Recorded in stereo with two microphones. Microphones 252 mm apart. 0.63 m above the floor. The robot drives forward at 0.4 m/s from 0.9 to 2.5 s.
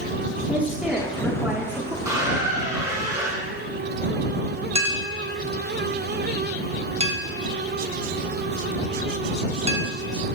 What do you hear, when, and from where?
0.5 s a woman speaking: 5° right (ahead or behind), 1.4 m; by 1.9 s 10° right (ahead or behind), 1.1 m
2.0 s a squeak: 10° right (ahead or behind), 2 m
4.8 s a clink: 25° right (ahead or behind), 0.9 m